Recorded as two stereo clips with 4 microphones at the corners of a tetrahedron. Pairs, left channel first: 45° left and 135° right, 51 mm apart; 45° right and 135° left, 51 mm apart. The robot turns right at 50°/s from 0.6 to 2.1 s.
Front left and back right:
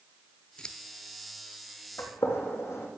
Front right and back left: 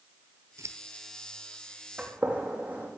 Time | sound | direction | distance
0.6 | scissors | 115° left | 1.0 m
2.0 | a gunshot | 65° left | 4.5 m